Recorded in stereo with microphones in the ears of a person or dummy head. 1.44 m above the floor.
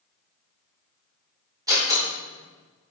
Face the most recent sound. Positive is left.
turn(degrees=-20)  # may be behind; listen again after turning